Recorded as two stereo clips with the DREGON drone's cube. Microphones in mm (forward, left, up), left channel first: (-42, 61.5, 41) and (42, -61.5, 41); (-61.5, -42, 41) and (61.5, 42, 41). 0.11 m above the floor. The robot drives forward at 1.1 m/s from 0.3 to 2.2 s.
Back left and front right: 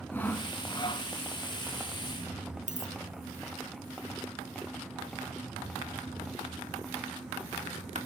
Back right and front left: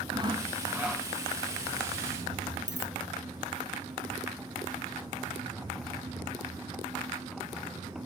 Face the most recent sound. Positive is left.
turn(degrees=-80)